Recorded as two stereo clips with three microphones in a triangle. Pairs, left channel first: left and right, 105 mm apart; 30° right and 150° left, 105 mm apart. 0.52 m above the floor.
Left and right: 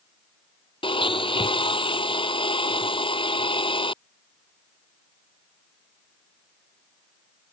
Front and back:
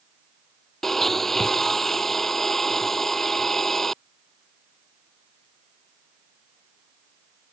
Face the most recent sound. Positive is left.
turn(degrees=55)